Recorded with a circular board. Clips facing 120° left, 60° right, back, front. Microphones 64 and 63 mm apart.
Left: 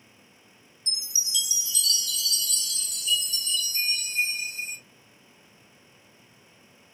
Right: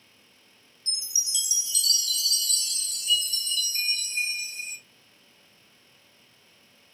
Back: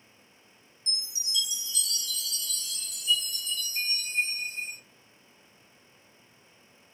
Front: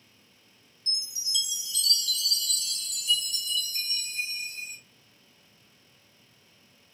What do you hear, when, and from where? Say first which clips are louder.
0.9 s a chime: left 2 dB, even; 20° right, 1.0 m